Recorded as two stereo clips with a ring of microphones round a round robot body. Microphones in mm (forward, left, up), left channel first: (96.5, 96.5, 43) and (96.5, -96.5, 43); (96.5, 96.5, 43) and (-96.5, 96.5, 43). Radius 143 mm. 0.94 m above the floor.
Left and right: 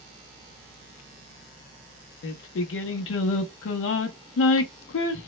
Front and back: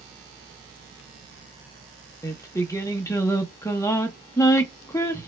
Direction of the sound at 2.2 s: 75° left.